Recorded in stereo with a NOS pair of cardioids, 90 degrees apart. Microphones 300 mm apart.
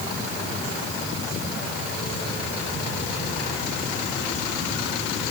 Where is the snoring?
I don't hear snoring.